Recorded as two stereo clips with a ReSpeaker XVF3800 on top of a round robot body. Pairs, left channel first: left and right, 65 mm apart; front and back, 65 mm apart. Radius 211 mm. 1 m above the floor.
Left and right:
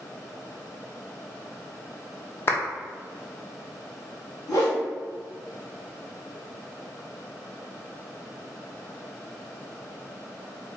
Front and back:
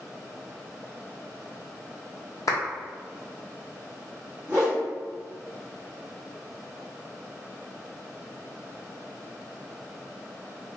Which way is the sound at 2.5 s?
35° left.